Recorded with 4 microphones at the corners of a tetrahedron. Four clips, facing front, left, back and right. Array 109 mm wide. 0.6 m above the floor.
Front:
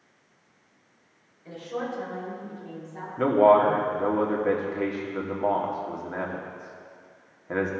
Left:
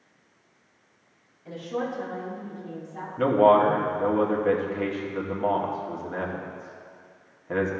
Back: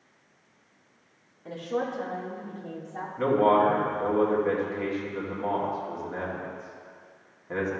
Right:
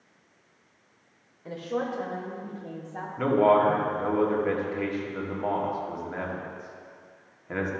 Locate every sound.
1.4 s a woman speaking: 120° right, 1.7 m
3.2 s a man speaking: 20° left, 1.3 m